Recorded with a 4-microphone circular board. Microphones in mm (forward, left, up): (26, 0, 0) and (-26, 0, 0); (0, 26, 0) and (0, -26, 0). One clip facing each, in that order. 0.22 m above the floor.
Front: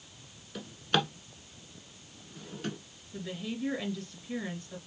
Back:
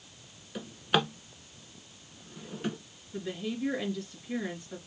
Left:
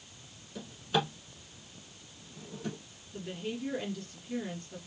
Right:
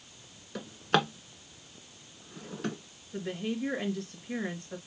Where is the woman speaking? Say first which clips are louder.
Back 3 dB, right 4 dB; 95° right, 3.5 m.